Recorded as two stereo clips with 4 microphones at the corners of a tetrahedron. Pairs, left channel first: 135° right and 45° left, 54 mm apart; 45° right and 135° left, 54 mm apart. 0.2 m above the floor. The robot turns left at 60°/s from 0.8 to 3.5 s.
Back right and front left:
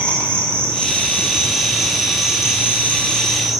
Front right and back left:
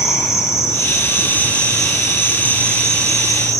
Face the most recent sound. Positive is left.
turn(degrees=130)